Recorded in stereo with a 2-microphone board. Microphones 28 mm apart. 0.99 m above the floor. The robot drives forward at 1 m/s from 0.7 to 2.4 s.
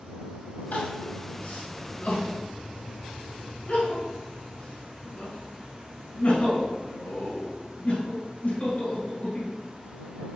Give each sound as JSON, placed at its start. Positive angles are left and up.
{"t": 0.7, "sound": "crying", "side_deg": 90, "distance_m": 3.0}